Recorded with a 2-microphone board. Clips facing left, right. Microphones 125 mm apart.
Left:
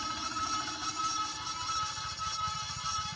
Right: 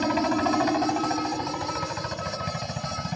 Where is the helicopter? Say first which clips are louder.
Right 16 dB; 65° right (ahead or behind); by 3.2 s 70° right (ahead or behind).